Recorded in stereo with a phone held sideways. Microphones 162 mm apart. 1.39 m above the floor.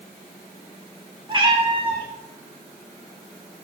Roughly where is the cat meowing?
Right.